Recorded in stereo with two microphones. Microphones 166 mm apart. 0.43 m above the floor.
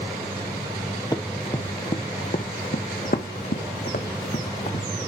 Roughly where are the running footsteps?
Left.